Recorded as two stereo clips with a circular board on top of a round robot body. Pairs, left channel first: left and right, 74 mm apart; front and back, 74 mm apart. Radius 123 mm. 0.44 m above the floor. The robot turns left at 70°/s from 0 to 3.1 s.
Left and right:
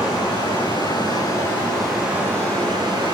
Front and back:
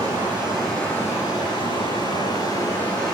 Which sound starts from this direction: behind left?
Running water, at 0.0 s.